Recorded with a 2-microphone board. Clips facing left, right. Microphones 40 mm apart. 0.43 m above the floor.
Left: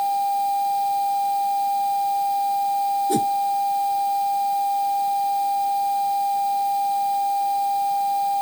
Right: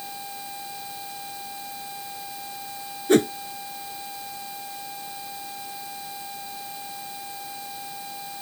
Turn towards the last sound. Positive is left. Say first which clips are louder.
# right 2 dB
turn(degrees=-55)  # may be behind; listen again after turning